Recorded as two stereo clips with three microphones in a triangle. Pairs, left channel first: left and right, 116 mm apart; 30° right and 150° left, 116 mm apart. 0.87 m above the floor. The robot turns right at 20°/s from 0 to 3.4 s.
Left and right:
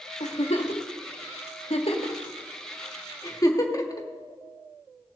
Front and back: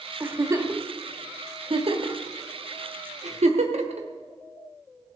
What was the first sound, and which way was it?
A giggle, 85° left.